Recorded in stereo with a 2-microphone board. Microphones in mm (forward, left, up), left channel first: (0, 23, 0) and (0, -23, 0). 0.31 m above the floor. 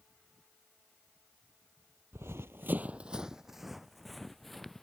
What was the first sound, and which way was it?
Running footsteps, 65° right (ahead or behind).